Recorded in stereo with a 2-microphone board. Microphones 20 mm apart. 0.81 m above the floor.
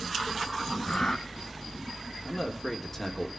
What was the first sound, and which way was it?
Breathing, 55° left (ahead or behind).